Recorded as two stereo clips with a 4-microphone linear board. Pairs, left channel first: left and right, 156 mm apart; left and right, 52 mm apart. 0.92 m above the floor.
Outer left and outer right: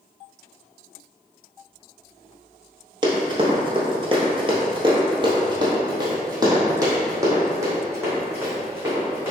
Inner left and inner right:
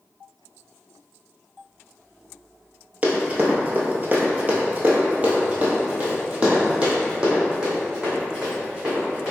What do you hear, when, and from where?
3.0 s running footsteps: 30° right (ahead or behind), 1.1 m; by 9.3 s 15° right (ahead or behind), 3 m